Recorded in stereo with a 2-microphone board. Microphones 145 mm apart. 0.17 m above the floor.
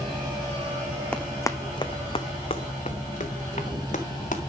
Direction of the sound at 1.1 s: 10° left (ahead or behind).